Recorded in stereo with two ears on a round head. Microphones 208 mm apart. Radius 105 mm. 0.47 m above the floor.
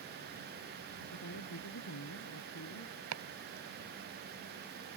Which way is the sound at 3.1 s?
70° right (ahead or behind).